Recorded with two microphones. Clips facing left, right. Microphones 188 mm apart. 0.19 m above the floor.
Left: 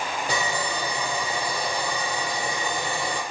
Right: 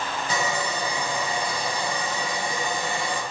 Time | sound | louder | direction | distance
0.3 | sawing | right 2 dB | 70° left (ahead or behind) | 7.5 m